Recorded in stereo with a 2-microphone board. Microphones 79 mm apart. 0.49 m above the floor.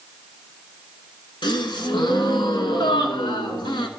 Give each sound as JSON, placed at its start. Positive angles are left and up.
{"t": 1.4, "sound": "a gasp", "side_deg": 80, "distance_m": 1.2}